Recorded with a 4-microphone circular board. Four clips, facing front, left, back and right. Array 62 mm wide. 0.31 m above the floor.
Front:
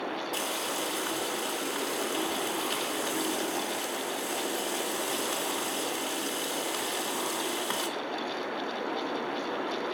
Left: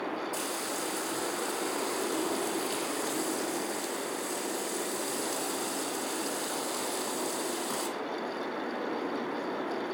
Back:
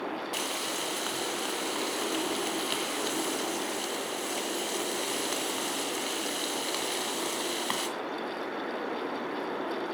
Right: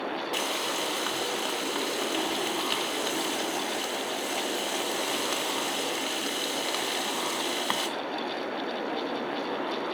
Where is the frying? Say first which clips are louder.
Right 4 dB, front 1 dB; 105° right, 1.7 m.